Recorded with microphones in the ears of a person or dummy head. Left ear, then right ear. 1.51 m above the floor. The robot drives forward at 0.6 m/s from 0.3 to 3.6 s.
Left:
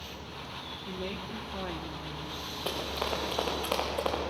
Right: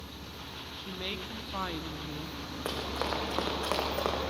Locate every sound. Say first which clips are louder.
0.8 s a woman speaking: right 3 dB; 30° right (ahead or behind), 1.6 m; by 2.4 s 65° right (ahead or behind), 0.9 m
2.6 s running footsteps: even; 55° right (ahead or behind), 6 m